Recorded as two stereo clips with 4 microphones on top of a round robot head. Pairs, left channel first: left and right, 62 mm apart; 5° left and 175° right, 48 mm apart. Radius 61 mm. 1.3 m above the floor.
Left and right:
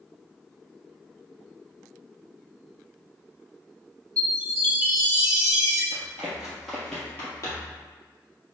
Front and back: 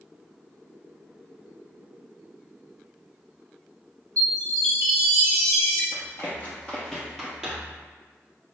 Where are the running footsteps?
30° right, 1.6 m; by 7.8 s 115° left, 1.5 m.